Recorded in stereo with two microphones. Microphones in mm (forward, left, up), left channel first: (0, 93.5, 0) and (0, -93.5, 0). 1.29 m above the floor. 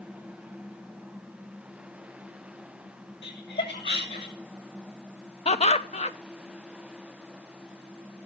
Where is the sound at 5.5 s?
35° left (ahead or behind), 1.0 m.